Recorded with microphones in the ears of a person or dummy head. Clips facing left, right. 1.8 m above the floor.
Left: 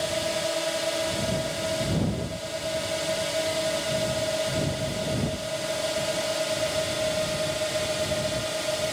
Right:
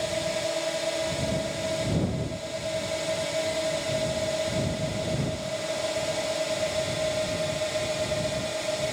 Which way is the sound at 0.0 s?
5° left (ahead or behind).